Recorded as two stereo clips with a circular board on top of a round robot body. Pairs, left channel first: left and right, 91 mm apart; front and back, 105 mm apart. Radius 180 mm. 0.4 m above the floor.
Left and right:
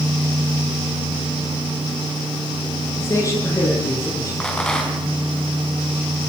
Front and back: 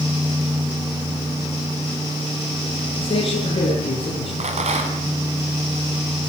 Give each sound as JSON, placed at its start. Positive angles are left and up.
{"t": 3.0, "sound": "a man speaking", "azimuth_deg": 35, "distance_m": 9.5}
{"t": 4.4, "sound": "a rattle", "azimuth_deg": 170, "distance_m": 4.5}